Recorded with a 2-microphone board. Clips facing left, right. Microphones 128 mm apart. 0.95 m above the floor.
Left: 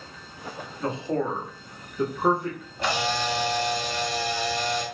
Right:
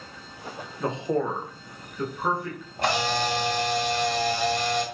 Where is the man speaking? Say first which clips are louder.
Right 1 dB; 25° right (ahead or behind), 0.7 m; by 2.6 s 35° left (ahead or behind), 0.8 m.